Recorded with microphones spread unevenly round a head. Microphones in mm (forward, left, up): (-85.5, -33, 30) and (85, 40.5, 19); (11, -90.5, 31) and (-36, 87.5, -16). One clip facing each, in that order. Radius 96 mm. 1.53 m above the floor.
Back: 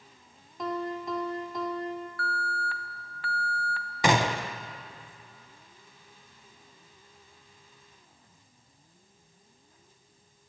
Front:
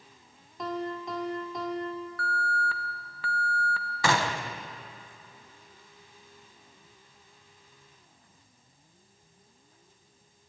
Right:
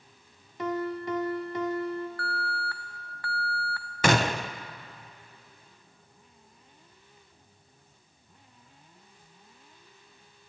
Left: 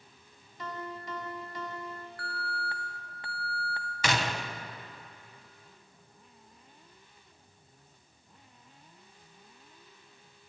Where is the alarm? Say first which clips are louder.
Front 2 dB, right 4 dB; 30° left, 1.2 m.